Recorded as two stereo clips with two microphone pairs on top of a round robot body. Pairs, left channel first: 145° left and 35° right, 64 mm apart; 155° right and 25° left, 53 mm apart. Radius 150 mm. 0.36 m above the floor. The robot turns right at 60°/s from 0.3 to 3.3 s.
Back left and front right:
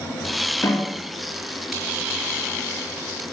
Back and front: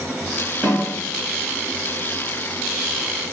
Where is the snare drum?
110° left, 3.5 m; by 0.9 s 125° left, 3.5 m.